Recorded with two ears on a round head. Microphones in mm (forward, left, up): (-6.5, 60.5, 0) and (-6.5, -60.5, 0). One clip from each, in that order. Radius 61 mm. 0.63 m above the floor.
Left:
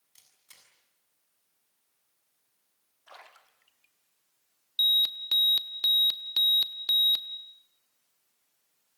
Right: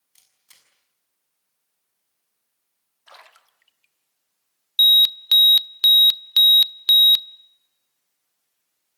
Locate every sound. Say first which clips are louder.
0.1 s a camera shutter: right 1 dB; 10° right (ahead or behind), 7 m
3.1 s a splash: right 3 dB; 35° right (ahead or behind), 1.5 m
4.8 s an alarm: right 10 dB; 50° right (ahead or behind), 0.7 m